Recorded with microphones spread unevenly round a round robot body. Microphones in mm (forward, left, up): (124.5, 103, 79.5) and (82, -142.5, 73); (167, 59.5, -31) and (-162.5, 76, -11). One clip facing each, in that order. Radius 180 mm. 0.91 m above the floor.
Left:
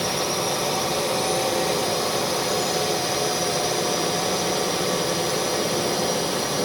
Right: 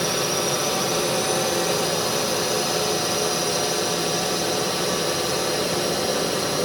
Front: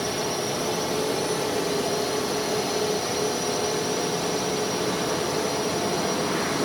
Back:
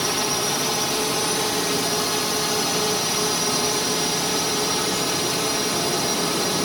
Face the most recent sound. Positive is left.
turn(degrees=180)